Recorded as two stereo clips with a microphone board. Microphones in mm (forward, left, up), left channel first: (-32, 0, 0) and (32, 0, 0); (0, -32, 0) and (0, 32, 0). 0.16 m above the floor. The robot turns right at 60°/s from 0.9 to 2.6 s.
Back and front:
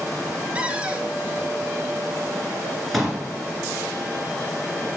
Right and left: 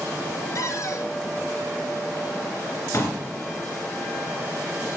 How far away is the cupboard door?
About 0.8 m.